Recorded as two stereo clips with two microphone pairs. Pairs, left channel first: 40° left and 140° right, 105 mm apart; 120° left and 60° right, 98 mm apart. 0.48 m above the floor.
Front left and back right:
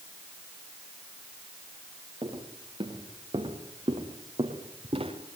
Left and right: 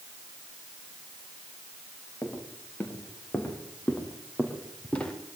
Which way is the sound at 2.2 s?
175° right.